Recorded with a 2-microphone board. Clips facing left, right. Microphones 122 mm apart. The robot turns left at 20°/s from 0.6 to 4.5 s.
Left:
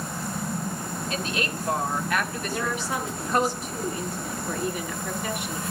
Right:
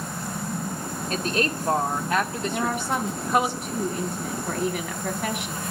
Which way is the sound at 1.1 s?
45° right (ahead or behind).